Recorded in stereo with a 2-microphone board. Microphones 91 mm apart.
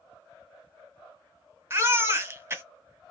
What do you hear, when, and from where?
1.7 s a baby crying: 25° right (ahead or behind), 0.9 m